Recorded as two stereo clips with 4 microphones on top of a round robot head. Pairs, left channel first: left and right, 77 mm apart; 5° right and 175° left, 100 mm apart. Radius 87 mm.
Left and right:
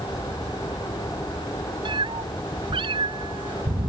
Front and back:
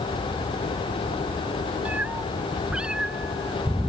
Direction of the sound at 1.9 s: 105° right.